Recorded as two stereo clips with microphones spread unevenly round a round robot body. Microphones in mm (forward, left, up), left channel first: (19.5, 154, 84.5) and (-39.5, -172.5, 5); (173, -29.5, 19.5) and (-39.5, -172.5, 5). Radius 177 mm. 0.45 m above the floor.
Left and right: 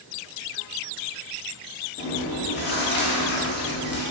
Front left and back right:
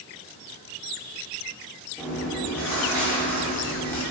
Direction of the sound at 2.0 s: 115° left.